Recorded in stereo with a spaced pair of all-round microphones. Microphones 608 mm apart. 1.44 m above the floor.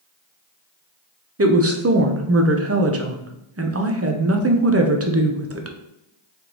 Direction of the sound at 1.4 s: 25° right (ahead or behind).